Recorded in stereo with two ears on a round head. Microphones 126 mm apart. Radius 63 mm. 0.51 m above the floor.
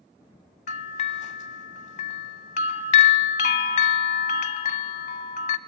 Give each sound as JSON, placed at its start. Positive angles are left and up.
{"t": 0.7, "sound": "a bell", "side_deg": 55, "distance_m": 0.7}